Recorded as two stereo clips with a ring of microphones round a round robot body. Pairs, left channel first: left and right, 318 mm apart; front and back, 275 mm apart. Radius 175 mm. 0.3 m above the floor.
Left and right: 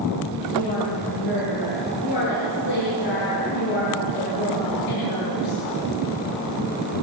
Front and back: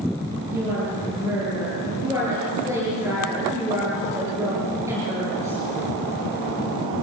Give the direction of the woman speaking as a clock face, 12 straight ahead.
9 o'clock.